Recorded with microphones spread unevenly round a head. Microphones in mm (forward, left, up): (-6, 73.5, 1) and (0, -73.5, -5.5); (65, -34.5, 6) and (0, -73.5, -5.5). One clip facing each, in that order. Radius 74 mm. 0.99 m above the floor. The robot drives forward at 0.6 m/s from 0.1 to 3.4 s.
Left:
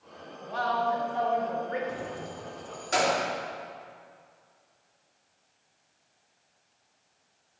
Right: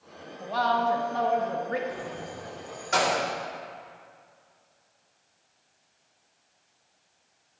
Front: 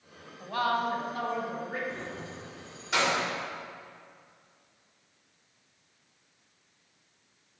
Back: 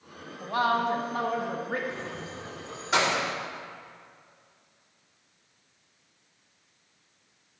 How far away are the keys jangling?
About 1.3 m.